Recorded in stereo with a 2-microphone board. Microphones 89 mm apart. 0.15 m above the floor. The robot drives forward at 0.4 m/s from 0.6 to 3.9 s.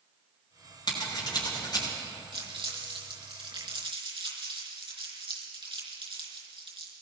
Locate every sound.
0.9 s scissors: 50° left (ahead or behind), 7 m
2.3 s crumpling: 75° right (ahead or behind), 4.5 m; by 6.9 s 70° right (ahead or behind), 4.5 m